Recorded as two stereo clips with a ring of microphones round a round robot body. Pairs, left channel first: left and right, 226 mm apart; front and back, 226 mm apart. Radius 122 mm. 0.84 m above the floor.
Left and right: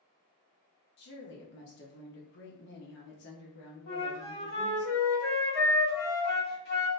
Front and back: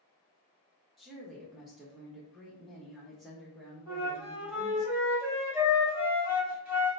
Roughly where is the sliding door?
No sliding door in this recording.